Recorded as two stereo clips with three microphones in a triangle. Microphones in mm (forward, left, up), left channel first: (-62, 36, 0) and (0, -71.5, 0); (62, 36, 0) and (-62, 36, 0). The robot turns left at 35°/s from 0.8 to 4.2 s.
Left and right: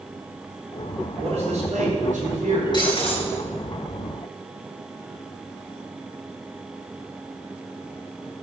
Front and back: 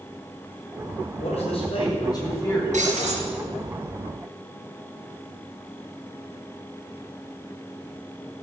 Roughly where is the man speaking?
Ahead right.